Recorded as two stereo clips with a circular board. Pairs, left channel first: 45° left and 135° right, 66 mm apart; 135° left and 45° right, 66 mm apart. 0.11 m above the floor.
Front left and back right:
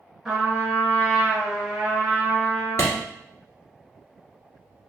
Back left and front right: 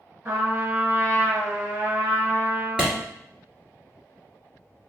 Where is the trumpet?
55° right, 1.3 m.